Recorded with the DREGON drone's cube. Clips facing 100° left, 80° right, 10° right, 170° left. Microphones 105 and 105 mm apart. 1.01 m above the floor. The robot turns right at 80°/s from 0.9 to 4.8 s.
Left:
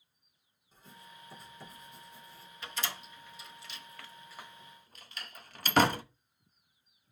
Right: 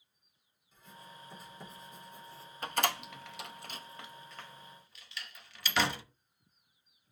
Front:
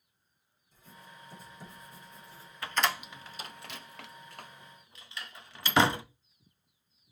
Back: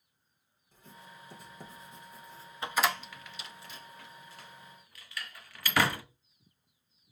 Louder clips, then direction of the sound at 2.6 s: Right 8 dB, back 1 dB; 120° right.